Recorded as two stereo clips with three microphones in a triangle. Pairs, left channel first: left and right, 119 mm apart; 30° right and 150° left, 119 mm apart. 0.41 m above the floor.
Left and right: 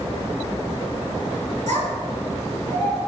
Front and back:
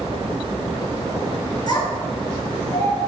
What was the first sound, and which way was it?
A child speaking, 85° right.